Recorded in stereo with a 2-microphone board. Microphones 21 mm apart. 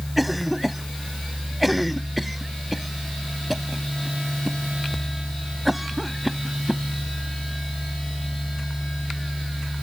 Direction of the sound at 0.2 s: 5° right (ahead or behind).